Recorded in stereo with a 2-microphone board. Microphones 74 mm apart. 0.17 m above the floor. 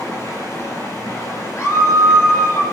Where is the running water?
45° left (ahead or behind), 6.5 m.